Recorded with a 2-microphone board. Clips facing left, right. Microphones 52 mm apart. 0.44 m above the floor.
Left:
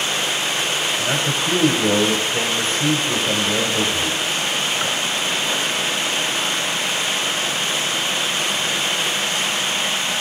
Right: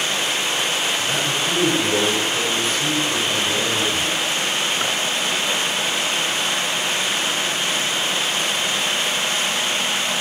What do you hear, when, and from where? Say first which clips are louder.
1.0 s a man speaking: left 1 dB; 40° left (ahead or behind), 1.7 m